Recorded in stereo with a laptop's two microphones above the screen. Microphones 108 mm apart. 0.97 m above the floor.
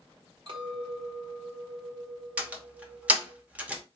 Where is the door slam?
10° right (ahead or behind), 0.8 m.